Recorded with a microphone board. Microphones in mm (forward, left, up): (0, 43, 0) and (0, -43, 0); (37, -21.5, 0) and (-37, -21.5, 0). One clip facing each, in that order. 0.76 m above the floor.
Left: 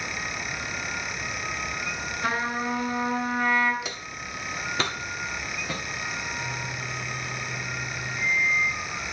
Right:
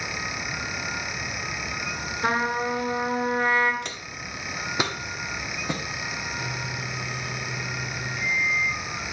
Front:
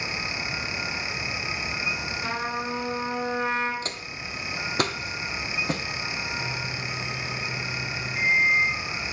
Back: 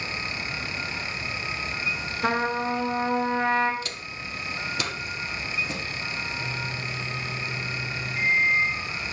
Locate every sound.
2.2 s a trumpet: 145° right, 2 m
3.8 s footsteps: 10° left, 0.9 m; by 5.8 s 30° right, 1.6 m
6.4 s a microwave: 75° right, 2.5 m